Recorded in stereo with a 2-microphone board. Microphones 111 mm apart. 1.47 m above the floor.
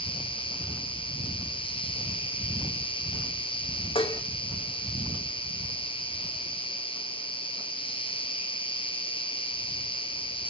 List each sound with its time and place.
0.0 s an insect: 55° left (ahead or behind), 1.1 m
4.0 s dishes clattering: 55° left (ahead or behind), 1.4 m